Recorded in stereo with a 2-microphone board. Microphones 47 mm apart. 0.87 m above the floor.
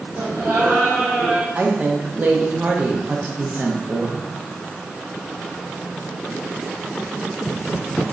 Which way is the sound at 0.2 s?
65° right (ahead or behind).